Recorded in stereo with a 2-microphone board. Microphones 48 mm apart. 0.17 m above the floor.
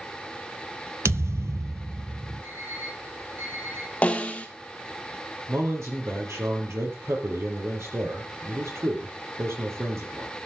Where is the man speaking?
70° right (ahead or behind), 4.5 m.